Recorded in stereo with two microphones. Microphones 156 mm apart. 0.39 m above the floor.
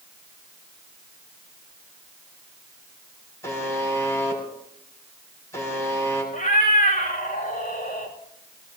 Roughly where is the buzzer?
Centre.